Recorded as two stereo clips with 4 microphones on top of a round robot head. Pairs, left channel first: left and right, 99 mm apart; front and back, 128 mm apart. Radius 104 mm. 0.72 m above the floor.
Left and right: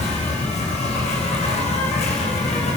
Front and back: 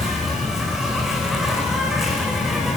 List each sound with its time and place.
0.0 s an insect: 95° left, 6 m